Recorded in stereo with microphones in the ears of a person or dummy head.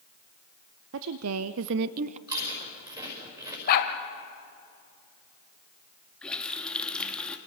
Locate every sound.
0.9 s a woman speaking: 75° right (ahead or behind), 0.8 m; by 2.2 s 30° right (ahead or behind), 0.6 m
2.3 s chewing: 25° right (ahead or behind), 5.5 m
3.7 s a dog barking: 55° left (ahead or behind), 1.7 m
6.2 s a running tap: 5° left (ahead or behind), 1.4 m